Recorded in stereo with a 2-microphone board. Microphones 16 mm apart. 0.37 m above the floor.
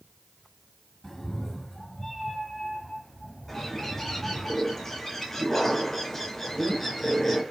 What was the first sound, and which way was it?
A cat meowing, 20° left (ahead or behind).